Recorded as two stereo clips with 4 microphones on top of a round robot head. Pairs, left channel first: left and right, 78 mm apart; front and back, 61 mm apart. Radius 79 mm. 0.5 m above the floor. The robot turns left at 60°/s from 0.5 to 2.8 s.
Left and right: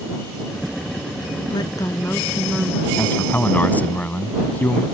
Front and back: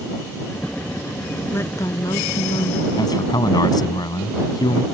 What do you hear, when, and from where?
1.5 s a woman speaking: 60° left; by 2.9 s 20° right
3.0 s a man speaking: 20° left